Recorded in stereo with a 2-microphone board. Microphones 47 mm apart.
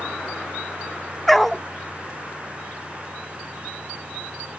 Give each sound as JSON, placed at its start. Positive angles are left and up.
{"t": 1.3, "sound": "a dog barking", "side_deg": 5}